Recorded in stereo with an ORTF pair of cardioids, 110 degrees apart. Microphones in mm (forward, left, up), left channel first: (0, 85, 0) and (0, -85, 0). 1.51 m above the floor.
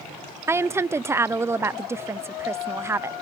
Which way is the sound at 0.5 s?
15° right.